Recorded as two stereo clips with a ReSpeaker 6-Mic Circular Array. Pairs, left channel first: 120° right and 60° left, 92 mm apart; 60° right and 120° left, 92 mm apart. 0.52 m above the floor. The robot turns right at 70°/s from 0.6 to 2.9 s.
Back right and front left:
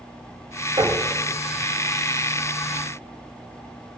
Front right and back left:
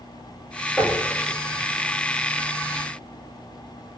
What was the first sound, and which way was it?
Knocking, 30° left.